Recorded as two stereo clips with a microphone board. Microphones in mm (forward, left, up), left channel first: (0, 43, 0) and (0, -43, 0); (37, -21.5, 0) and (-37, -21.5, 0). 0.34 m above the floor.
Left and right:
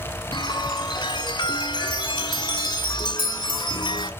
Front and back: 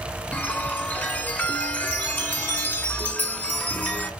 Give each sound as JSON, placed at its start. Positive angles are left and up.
{"t": 0.3, "sound": "a chime", "azimuth_deg": 65, "distance_m": 1.6}